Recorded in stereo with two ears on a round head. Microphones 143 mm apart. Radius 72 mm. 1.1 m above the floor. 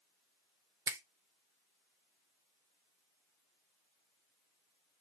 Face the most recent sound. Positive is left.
turn(degrees=-20)  # may be behind; listen again after turning